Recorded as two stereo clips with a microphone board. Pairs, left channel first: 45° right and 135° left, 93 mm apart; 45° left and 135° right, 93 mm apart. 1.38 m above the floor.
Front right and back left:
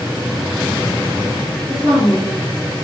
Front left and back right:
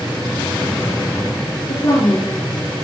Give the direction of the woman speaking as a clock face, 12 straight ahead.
10 o'clock.